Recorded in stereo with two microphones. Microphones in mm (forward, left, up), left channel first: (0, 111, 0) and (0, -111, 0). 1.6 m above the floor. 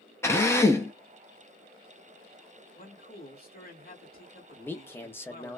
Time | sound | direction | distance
0.2 | a drill | 10° left (ahead or behind) | 0.6 m
2.8 | a man speaking | 45° left (ahead or behind) | 1.3 m
4.6 | a man speaking | 10° left (ahead or behind) | 0.5 m